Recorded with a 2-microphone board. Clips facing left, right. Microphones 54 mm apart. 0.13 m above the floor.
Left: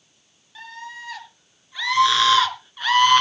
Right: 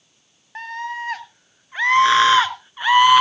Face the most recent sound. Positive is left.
turn(degrees=-10)  # may be behind; listen again after turning